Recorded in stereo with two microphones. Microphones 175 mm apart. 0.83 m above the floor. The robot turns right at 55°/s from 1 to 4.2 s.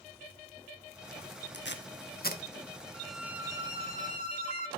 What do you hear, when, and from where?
1.5 s tape being pulled: 80° left, 1.0 m; by 2.4 s 50° left (ahead or behind), 1.0 m
2.9 s a violin: 170° left, 1.3 m; by 4.7 s 120° right, 1.3 m